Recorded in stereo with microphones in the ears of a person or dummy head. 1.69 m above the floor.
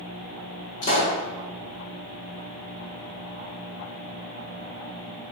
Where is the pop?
45° left (ahead or behind), 0.7 m.